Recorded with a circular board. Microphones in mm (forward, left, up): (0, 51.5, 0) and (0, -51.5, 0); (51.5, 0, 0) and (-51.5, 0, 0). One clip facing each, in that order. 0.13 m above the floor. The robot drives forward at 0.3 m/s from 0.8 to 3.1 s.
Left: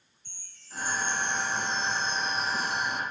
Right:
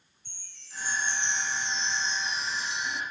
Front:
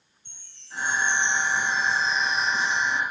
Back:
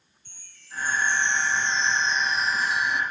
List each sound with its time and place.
0.2 s a chime: 60° left, 1.0 m; by 3.0 s 105° left, 0.9 m